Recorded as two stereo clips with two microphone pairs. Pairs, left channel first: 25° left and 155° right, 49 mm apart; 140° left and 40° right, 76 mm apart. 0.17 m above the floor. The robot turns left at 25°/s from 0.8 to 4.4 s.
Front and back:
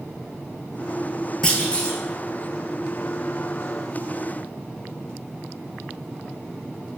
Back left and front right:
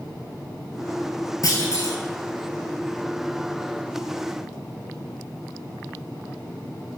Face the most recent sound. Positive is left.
turn(degrees=30)